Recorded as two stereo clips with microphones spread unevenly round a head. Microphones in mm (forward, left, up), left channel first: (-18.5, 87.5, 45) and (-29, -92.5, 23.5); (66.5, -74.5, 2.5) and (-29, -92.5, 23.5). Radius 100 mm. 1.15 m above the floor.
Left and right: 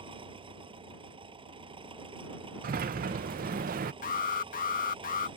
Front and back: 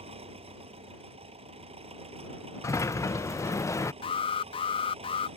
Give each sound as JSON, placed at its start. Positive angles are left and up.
{"t": 0.0, "sound": "an engine running", "azimuth_deg": -155}
{"t": 2.6, "sound": "a sliding door", "azimuth_deg": -50}
{"t": 4.0, "sound": "an alarm", "azimuth_deg": 40}